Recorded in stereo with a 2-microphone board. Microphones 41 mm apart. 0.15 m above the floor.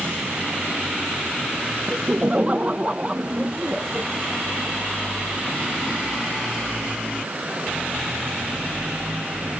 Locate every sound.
1.9 s laughter: 35° right (ahead or behind); by 4.0 s 25° right (ahead or behind)